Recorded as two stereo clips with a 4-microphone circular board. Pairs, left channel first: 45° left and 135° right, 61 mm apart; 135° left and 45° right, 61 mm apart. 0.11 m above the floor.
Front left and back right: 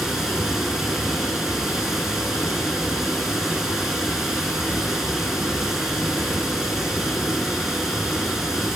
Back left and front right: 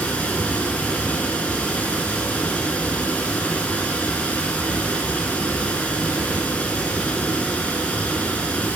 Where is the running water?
155° left, 0.7 m.